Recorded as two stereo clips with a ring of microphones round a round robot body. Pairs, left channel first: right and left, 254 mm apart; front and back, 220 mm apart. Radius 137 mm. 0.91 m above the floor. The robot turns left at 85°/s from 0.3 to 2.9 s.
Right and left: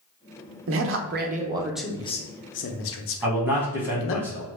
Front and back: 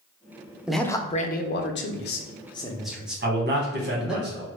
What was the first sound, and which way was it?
A man speaking, 95° left.